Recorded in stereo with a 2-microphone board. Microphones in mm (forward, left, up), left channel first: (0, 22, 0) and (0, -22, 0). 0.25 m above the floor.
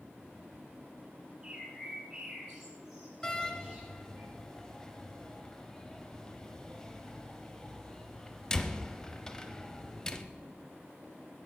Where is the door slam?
15° left (ahead or behind), 0.6 m.